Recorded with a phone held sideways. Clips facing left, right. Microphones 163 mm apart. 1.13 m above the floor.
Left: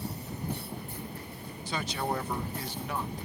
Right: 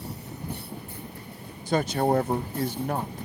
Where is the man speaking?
45° right (ahead or behind).